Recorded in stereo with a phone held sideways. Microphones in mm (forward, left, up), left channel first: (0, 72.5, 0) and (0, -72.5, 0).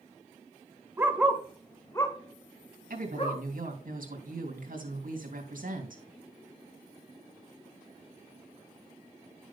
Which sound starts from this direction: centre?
A dog barking, at 1.0 s.